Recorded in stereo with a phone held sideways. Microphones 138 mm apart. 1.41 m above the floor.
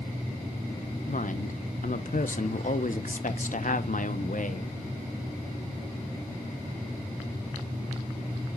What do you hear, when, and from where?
1.1 s a woman speaking: 60° left (ahead or behind), 0.9 m